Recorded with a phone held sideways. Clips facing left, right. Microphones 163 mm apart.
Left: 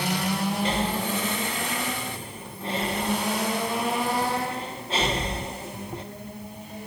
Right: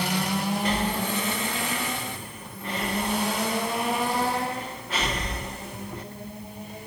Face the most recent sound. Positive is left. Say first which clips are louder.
# even
turn(degrees=30)  # may be behind; listen again after turning